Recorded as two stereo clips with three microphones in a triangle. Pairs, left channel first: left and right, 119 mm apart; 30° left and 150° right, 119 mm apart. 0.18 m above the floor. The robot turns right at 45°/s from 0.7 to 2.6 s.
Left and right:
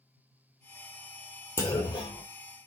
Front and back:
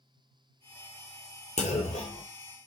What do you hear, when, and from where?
1.6 s a clunk: 25° left, 1.1 m; by 2.2 s 55° left, 1.1 m